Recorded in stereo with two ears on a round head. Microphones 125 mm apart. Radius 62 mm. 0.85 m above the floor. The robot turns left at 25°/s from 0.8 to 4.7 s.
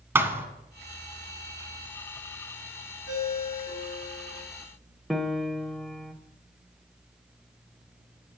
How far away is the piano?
About 0.7 m.